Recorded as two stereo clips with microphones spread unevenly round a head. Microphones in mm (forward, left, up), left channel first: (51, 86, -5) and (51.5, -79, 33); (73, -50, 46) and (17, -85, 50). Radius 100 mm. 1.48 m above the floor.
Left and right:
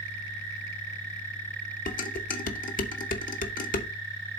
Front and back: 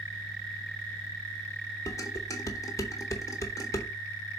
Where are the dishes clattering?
75° left, 0.8 m.